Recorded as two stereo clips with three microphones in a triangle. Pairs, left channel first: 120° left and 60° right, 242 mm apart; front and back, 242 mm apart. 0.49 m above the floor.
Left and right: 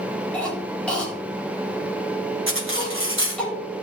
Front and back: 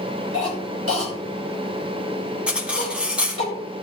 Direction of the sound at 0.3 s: 155° right.